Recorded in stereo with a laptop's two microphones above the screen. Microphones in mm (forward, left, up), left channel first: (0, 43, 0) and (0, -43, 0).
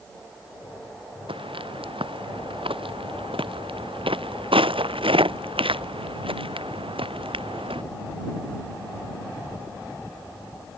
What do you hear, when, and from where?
1.3 s footsteps: 80° right; by 7.8 s 85° right